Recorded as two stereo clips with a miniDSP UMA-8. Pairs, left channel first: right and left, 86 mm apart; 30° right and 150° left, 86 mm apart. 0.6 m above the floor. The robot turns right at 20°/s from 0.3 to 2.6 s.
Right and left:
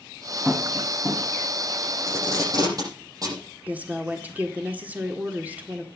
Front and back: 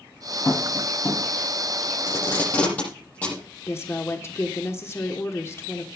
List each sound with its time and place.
0.5 s tapping: 20° left, 5 m; by 1.2 s 35° left, 5 m
2.1 s tape being pulled: 35° left, 7.5 m; by 3.4 s 45° left, 7.5 m
3.7 s a woman speaking: 20° left, 1.4 m